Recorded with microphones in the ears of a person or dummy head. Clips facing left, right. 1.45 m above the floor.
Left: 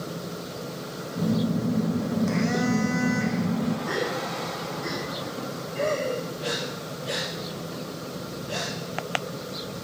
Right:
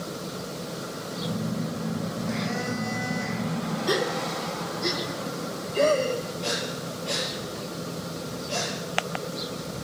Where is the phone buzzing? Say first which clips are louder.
Left 6 dB; 65° left (ahead or behind), 1.4 m.